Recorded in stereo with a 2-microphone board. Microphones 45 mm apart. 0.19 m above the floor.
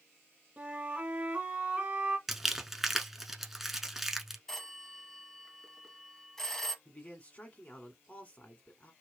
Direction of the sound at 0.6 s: 30° right (ahead or behind).